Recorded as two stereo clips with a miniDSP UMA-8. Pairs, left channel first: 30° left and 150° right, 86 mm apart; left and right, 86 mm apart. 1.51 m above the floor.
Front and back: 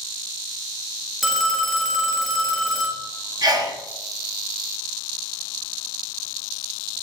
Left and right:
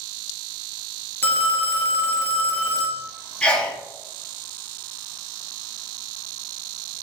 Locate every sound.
1.2 s a phone ringing: 125° left, 0.5 m
3.4 s a sneeze: 170° left, 0.6 m